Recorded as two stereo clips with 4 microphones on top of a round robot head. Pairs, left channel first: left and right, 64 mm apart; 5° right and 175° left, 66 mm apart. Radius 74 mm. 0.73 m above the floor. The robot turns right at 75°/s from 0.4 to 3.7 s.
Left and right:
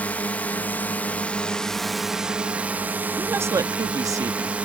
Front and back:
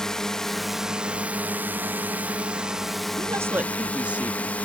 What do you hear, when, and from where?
0.0 s a drone: 65° left; by 4.6 s 45° right
3.2 s a woman speaking: 155° right; by 4.6 s 115° right